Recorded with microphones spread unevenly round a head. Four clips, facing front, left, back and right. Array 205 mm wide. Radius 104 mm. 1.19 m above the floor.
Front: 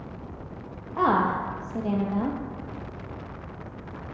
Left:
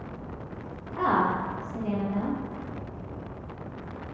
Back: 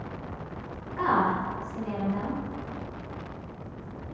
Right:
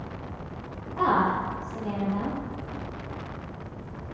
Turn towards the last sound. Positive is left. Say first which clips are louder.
# right 1 dB, front 2 dB
turn(degrees=-5)